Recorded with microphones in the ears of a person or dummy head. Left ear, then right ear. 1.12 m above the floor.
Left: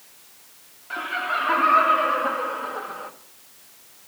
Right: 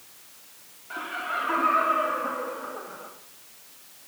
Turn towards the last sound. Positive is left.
turn(degrees=55)  # may be behind; listen again after turning